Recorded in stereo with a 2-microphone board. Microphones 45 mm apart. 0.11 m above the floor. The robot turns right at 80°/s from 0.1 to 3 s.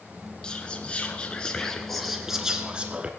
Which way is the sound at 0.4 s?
20° left (ahead or behind).